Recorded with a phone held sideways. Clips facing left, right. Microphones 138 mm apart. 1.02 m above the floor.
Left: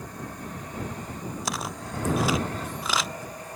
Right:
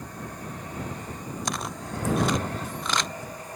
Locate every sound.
1.4 s footsteps: centre (ahead or behind); by 3.5 s 5° left (ahead or behind)